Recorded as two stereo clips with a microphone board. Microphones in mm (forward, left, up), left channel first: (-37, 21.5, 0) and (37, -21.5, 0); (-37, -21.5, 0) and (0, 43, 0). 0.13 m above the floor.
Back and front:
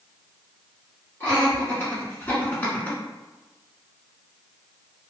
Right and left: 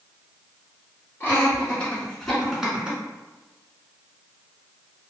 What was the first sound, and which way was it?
Laughter, 165° right.